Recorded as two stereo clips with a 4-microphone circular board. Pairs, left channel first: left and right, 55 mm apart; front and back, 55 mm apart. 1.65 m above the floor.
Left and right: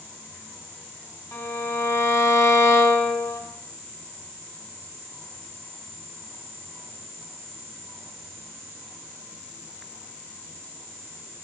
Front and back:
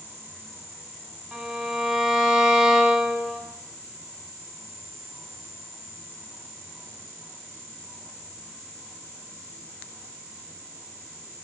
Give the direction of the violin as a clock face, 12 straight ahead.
9 o'clock.